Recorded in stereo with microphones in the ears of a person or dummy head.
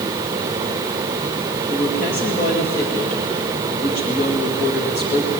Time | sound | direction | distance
1.7 | a woman speaking | 50° left (ahead or behind) | 2 m